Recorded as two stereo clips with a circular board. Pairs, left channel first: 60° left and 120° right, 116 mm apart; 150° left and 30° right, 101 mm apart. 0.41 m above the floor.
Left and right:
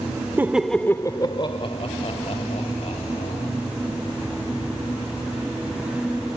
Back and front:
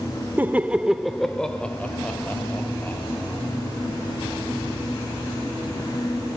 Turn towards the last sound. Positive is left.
turn(degrees=80)